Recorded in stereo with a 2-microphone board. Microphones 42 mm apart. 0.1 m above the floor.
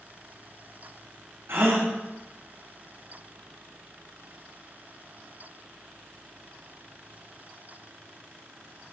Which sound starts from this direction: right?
A gasp, at 1.5 s.